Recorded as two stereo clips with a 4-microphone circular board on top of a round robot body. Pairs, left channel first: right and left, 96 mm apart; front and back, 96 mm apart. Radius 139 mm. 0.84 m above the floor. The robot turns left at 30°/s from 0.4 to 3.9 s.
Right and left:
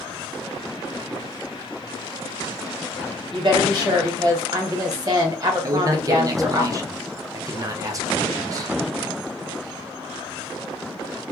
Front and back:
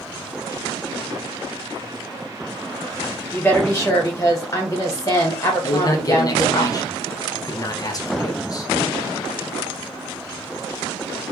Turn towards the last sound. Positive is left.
turn(degrees=45)